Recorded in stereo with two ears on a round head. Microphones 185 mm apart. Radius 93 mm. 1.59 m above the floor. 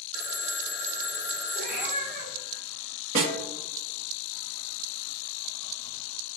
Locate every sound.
0.1 s a phone ringing: 55° left (ahead or behind), 1.4 m
1.6 s a cat meowing: 40° right (ahead or behind), 1.4 m
3.1 s a snare drum: 30° right (ahead or behind), 1.4 m